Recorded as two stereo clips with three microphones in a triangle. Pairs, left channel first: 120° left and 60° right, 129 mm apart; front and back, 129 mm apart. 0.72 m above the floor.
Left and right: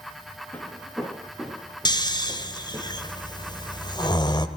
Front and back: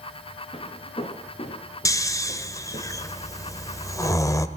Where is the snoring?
65° left, 1.3 m.